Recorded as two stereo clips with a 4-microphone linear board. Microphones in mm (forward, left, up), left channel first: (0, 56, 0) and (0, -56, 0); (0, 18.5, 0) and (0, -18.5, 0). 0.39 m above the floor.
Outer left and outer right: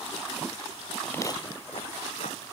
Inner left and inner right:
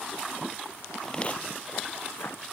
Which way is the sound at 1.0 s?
5° left (ahead or behind).